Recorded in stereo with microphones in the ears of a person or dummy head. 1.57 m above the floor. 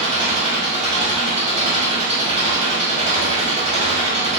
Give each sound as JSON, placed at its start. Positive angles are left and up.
{"t": 0.0, "sound": "an engine running", "side_deg": -35, "distance_m": 1.0}